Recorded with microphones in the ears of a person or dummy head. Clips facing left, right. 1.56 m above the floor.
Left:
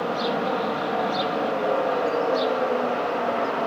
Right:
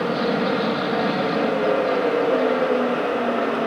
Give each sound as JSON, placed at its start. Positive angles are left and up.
{"t": 0.0, "sound": "an aircraft", "side_deg": -35}